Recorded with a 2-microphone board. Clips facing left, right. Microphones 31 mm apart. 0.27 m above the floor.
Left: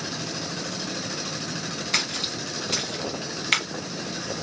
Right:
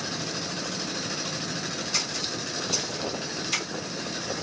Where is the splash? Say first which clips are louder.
Left 6 dB; 75° left (ahead or behind), 1.7 m.